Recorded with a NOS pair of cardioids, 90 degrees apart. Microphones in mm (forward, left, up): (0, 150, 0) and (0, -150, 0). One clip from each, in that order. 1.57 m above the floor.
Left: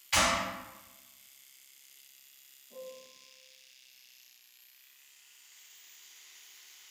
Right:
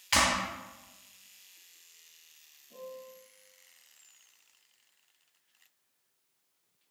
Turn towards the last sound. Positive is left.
turn(degrees=-20)